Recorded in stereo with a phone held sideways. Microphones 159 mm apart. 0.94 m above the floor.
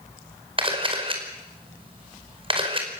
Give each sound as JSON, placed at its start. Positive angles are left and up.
{"t": 0.6, "sound": "a camera shutter", "side_deg": -35, "distance_m": 5.0}